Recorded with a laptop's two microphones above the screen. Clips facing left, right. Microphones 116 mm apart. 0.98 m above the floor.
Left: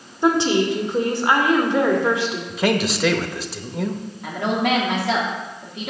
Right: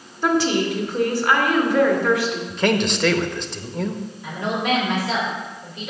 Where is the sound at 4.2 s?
60° left (ahead or behind), 2 m.